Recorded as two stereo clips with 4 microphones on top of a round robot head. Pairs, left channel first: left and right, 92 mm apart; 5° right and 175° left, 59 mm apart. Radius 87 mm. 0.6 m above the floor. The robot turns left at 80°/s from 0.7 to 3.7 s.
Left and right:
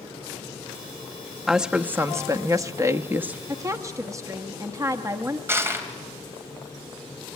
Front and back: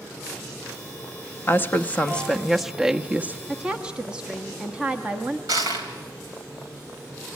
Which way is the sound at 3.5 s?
105° right.